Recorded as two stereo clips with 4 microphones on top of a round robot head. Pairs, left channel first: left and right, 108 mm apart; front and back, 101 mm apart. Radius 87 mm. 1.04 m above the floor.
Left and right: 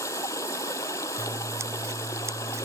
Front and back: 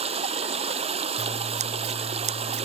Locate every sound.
0.0 s running water: 160° left
1.2 s scissors: 165° right